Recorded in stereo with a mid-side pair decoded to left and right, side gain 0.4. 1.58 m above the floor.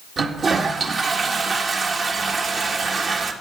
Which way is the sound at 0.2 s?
55° right.